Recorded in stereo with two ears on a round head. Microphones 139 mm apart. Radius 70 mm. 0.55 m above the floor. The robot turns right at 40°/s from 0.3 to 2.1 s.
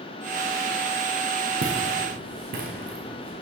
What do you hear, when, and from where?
1.6 s footsteps: 75° right (ahead or behind), 1.9 m; by 3.3 s 65° right (ahead or behind), 3 m